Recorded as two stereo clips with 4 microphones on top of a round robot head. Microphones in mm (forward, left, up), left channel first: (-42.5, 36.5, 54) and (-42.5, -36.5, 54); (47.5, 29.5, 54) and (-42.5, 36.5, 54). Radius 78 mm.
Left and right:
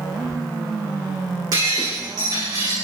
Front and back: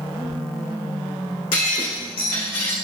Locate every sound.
1.5 s breaking glass: 40° right, 10 m